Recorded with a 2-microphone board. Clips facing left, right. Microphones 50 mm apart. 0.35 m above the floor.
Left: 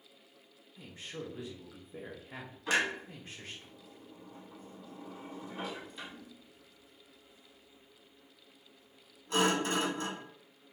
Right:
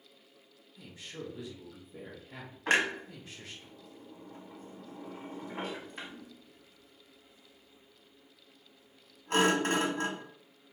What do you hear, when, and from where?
0.8 s a man speaking: 40° left (ahead or behind), 1.0 m
2.7 s a clunk: 55° right (ahead or behind), 0.9 m